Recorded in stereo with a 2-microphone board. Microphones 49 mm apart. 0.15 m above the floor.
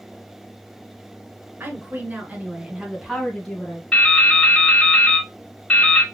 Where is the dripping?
20° left (ahead or behind), 2 m.